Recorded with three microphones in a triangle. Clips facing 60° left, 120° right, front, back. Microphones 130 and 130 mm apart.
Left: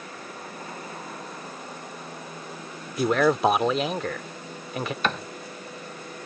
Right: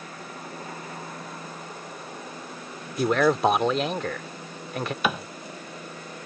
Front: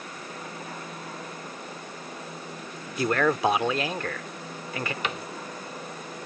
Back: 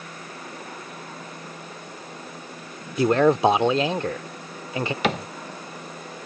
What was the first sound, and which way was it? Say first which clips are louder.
A man speaking: even, back 6 dB; 145° left.